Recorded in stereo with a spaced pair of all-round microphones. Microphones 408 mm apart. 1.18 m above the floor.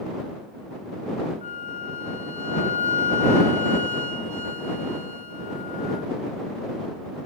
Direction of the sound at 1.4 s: 20° left (ahead or behind).